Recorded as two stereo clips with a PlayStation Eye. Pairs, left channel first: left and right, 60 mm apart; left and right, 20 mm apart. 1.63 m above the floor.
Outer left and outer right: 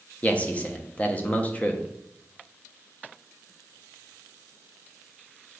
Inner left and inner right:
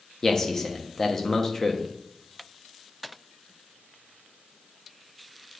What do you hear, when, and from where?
0.2 s a man speaking: 25° left (ahead or behind), 1.2 m